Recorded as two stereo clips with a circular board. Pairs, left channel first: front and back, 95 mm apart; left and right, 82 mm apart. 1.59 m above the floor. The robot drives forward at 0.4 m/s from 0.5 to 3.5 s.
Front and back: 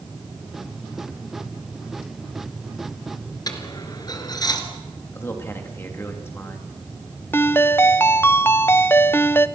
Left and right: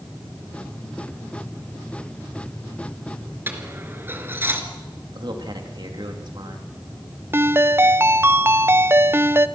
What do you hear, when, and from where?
3.5 s a dropped coin: 35° right, 2.5 m
5.1 s a man speaking: 65° right, 3.5 m
7.3 s a ringtone: 50° right, 0.6 m